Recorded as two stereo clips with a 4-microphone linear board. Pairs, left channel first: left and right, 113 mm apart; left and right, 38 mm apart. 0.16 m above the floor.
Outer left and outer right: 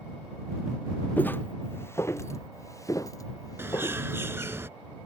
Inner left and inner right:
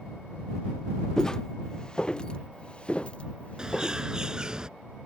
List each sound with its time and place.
1.2 s footsteps: 15° left (ahead or behind); by 4.0 s 35° left (ahead or behind)
3.6 s a bird: 20° right (ahead or behind)